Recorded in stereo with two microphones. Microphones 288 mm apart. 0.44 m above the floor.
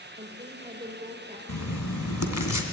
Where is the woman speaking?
25° right (ahead or behind), 1.9 m.